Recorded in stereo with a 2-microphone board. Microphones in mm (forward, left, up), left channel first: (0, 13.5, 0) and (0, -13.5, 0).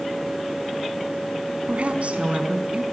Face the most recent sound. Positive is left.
turn(degrees=-50)  # may be behind; listen again after turning